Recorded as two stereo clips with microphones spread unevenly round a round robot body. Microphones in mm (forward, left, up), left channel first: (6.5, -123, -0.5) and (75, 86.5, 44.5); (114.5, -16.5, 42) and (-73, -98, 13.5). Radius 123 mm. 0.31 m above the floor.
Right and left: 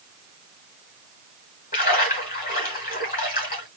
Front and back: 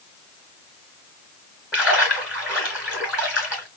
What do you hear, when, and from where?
1.7 s a splash: 75° right, 2.5 m